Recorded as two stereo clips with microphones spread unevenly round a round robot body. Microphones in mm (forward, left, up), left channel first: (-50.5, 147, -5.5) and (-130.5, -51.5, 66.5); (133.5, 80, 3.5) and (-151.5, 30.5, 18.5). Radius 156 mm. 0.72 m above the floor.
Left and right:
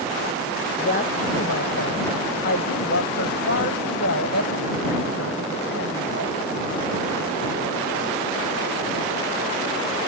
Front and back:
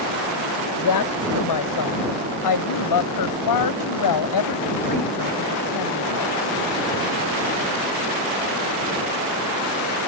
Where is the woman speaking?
15° left; by 6.4 s 20° left.